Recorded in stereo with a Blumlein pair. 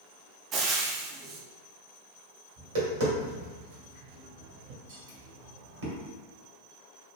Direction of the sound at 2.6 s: 60° right.